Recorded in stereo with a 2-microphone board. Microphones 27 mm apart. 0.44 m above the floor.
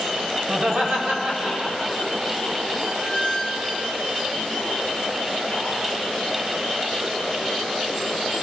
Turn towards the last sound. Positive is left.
turn(degrees=-10)  # may be behind; listen again after turning